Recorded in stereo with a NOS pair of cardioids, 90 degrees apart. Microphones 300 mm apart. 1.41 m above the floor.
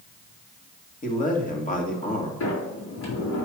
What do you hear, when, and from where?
1.0 s a man speaking: 25° left, 1.9 m
2.4 s a sliding door: 65° left, 3.5 m